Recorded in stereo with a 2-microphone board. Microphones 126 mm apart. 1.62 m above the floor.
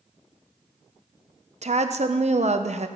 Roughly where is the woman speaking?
Right.